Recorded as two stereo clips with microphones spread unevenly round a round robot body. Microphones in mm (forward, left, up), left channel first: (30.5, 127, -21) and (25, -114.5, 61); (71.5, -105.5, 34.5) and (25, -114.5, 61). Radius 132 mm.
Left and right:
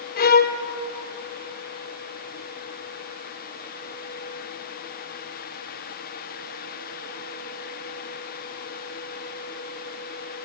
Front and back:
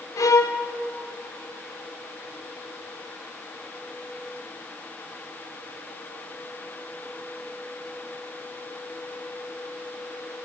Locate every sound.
0.2 s a violin: 30° left, 0.7 m